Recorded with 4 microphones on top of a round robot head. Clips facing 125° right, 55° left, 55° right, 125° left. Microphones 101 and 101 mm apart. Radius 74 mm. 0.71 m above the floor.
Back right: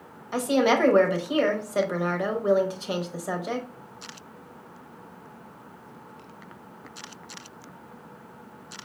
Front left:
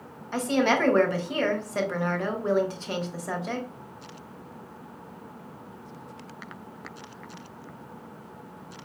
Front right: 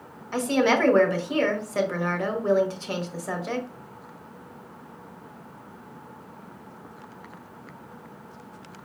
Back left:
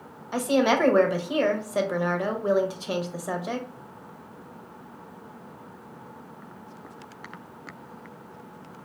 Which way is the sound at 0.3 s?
Straight behind.